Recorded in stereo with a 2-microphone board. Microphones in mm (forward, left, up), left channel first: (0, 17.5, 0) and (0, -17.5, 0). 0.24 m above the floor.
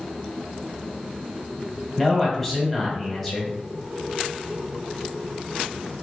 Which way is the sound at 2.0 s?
5° left (ahead or behind).